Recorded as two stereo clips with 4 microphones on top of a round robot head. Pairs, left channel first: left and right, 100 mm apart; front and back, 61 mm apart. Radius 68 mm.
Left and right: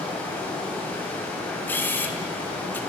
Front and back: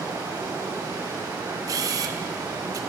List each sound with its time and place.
0.0 s running water: 160° left, 9.5 m
1.7 s a camera shutter: 160° left, 2 m